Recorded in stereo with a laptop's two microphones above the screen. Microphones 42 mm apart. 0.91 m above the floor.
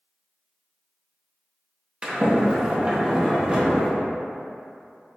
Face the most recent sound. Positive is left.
turn(degrees=-25)  # may be behind; listen again after turning